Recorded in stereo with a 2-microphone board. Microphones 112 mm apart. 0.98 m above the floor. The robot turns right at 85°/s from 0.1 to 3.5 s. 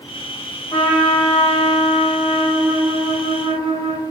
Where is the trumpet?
50° left, 2.0 m; by 4.0 s 75° right, 2.0 m.